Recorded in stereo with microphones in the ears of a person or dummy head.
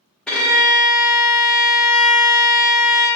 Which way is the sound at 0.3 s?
5° left (ahead or behind).